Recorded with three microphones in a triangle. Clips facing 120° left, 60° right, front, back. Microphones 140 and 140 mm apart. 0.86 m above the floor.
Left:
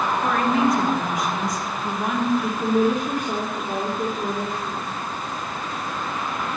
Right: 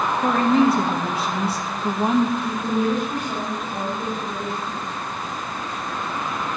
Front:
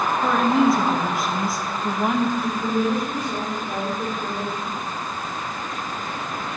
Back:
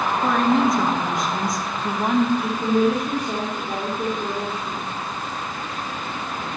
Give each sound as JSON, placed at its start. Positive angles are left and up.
{"t": 0.2, "sound": "a woman speaking", "azimuth_deg": -85, "distance_m": 1.0}
{"t": 2.4, "sound": "a woman speaking", "azimuth_deg": 120, "distance_m": 2.0}